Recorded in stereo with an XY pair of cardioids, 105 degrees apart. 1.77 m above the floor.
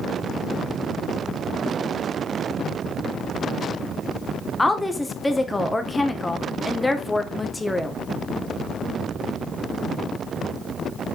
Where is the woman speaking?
15° left, 2.0 m.